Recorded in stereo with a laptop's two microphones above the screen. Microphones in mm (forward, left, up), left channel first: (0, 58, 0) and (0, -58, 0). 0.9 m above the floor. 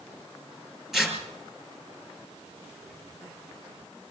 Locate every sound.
0.9 s tearing paper: 5° right (ahead or behind), 6 m